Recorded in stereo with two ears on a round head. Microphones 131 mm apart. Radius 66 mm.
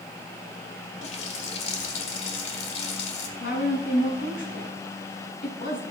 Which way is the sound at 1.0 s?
45° left (ahead or behind).